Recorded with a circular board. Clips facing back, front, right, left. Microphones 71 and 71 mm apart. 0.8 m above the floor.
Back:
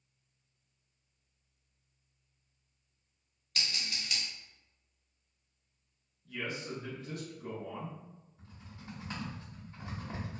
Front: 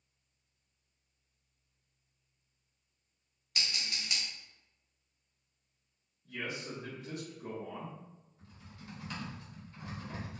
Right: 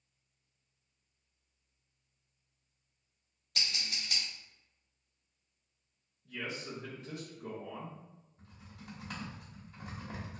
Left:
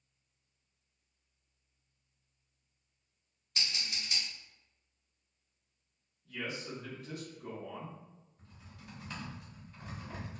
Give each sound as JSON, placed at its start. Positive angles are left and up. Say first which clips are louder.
{"t": 3.5, "sound": "scissors", "louder": "even, even", "azimuth_deg": -75, "distance_m": 1.5}
{"t": 6.2, "sound": "a man speaking", "louder": "back 1 dB, even", "azimuth_deg": -60, "distance_m": 0.9}
{"t": 8.4, "sound": "typing on a keyboard", "louder": "even, right 3 dB", "azimuth_deg": -115, "distance_m": 1.0}